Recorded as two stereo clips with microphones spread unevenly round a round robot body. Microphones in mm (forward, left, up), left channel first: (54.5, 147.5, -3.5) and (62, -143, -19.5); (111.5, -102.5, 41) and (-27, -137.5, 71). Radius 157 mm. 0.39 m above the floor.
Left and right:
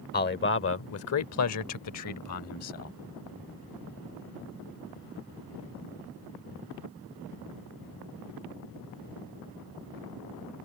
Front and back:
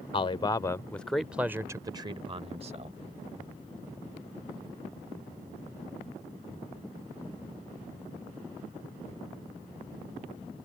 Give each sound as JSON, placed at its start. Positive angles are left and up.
{"t": 0.1, "sound": "a man speaking", "azimuth_deg": 40}